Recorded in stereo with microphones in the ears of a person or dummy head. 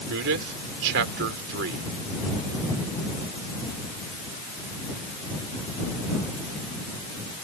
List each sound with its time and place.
0.1 s a man speaking: 75° right (ahead or behind)